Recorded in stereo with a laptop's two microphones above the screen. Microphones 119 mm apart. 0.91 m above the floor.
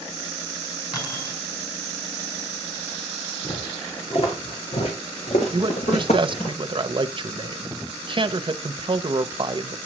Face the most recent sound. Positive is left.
turn(degrees=-45)  # may be behind; listen again after turning